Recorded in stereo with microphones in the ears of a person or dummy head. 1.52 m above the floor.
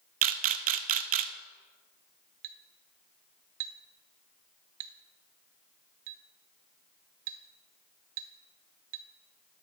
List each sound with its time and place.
0.2 s a camera shutter: 40° right (ahead or behind), 0.5 m
2.4 s a clink: 45° right (ahead or behind), 0.5 m